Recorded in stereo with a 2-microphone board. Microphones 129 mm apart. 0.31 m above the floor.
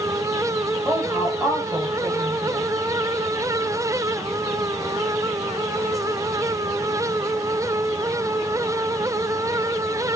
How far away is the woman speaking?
About 1.3 m.